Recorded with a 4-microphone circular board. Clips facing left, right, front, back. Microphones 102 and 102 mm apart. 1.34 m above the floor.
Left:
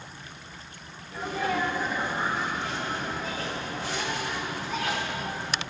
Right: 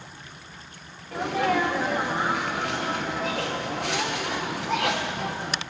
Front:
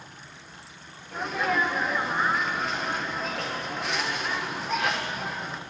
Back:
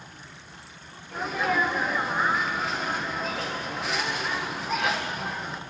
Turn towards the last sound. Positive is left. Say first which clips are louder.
# right 5 dB, back 1 dB
turn(degrees=-90)